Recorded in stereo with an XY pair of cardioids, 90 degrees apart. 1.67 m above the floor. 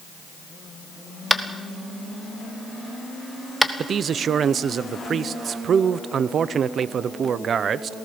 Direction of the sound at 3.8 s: 60° right.